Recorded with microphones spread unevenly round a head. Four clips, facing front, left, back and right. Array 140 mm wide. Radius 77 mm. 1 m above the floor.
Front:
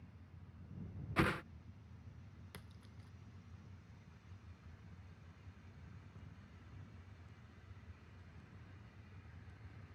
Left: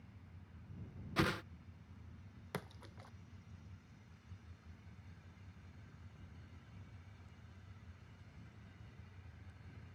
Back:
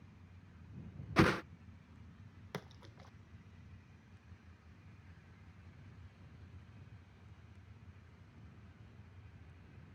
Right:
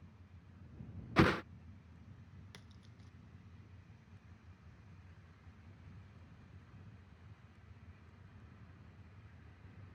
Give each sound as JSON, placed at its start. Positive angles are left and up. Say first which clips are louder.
{"t": 1.2, "sound": "a whoosh", "louder": "right 7 dB, back 6 dB", "azimuth_deg": -140}
{"t": 2.5, "sound": "a splash", "louder": "left 12 dB, back 13 dB", "azimuth_deg": 135}